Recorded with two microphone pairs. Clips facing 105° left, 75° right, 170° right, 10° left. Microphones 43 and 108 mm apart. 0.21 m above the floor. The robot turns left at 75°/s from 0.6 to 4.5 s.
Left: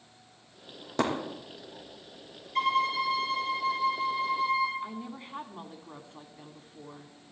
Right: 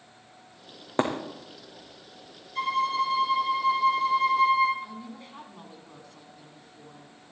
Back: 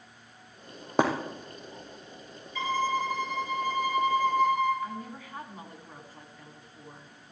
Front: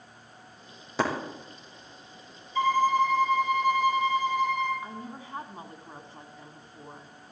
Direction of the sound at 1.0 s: 135° right.